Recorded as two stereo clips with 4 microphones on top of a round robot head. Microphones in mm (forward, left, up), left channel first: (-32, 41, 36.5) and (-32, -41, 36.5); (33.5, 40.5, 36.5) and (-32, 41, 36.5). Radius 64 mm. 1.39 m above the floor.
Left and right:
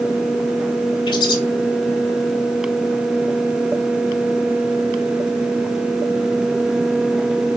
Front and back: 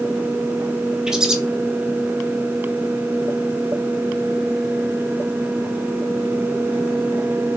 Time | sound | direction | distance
1.1 | a bird | 100° left | 1.2 m